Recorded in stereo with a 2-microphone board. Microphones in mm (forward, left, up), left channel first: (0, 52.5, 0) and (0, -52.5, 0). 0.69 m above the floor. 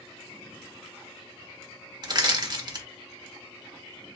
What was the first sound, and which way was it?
Crushing, 40° right (ahead or behind).